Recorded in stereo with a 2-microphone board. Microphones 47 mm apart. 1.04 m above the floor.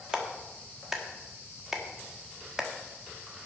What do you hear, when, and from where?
0.1 s a clap: 10° right (ahead or behind), 1.6 m